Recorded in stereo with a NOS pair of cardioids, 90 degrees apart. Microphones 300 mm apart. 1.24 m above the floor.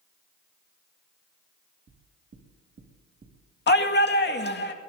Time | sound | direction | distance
1.9 | knocking | 40° right | 2.5 m
3.7 | a shout | 35° left | 2 m